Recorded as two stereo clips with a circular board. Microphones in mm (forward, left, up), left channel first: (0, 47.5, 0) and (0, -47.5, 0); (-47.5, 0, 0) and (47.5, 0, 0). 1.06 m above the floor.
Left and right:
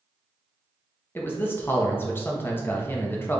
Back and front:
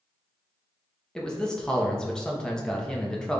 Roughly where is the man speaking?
Behind left.